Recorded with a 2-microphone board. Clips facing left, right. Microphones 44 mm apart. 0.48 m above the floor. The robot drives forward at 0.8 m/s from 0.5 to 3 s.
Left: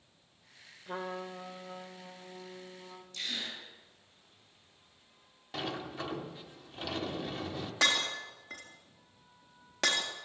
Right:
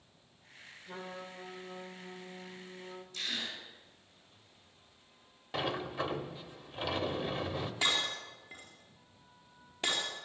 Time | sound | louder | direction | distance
0.9 | a trumpet | left 6 dB | 35° left (ahead or behind) | 0.8 m
3.1 | a gasp | even | 15° right (ahead or behind) | 6 m
5.5 | a sliding door | right 3 dB | 10° right (ahead or behind) | 1.3 m
7.8 | breaking glass | left 4 dB | 85° left | 3.5 m